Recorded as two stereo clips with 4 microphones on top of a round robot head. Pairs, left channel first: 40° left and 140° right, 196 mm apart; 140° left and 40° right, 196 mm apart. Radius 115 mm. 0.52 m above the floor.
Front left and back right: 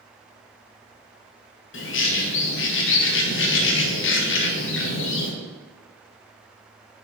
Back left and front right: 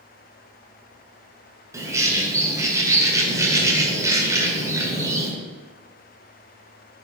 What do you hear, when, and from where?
1.7 s a bird: 35° left, 1.5 m